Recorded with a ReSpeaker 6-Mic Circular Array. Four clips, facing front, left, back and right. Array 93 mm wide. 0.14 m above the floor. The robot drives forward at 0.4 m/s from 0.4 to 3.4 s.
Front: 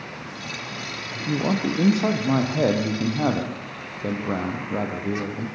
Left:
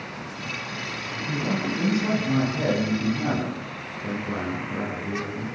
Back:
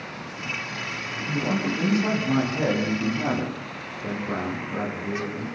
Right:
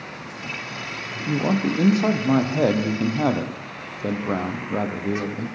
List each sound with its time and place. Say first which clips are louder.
1.1 s a man speaking: right 5 dB, front 3 dB; 55° right, 5.5 m; by 5.5 s 65° right, 5 m